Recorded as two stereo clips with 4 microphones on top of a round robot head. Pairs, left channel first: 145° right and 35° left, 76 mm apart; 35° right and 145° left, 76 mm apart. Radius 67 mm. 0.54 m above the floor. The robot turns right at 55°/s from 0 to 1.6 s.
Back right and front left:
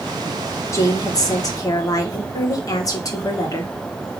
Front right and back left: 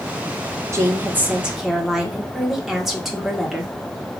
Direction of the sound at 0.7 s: Straight behind.